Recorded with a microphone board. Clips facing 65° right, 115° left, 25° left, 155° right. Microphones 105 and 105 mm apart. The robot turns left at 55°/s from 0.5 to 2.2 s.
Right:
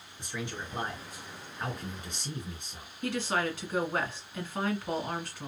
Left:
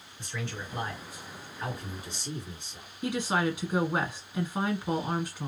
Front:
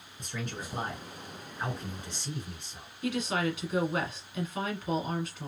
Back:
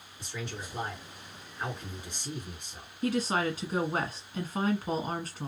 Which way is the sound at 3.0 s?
Straight behind.